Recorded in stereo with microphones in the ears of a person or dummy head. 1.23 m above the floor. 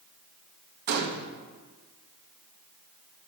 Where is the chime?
No chime in this recording.